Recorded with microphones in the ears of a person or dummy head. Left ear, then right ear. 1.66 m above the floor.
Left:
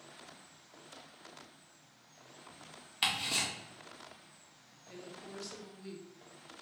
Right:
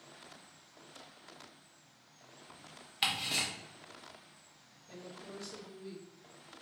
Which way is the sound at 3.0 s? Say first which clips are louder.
Even; centre (ahead or behind).